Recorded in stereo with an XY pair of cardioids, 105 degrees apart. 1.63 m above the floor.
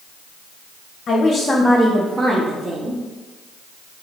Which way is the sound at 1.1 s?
45° left.